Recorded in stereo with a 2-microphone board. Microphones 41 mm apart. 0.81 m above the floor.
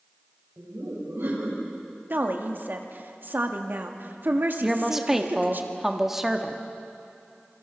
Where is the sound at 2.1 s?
55° right (ahead or behind), 1.7 m.